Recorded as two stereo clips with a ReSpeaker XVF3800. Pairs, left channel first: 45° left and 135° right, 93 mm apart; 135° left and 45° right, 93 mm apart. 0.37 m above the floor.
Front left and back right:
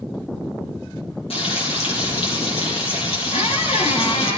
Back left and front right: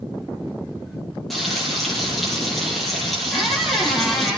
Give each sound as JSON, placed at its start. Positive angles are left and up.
{"t": 1.3, "sound": "frying", "azimuth_deg": 45, "distance_m": 6.5}
{"t": 3.3, "sound": "a squeak", "azimuth_deg": 45, "distance_m": 4.0}